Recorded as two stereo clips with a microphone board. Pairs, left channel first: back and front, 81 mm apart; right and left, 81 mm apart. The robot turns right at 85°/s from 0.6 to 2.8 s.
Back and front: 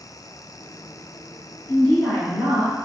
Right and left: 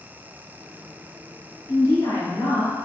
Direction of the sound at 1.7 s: 130° right.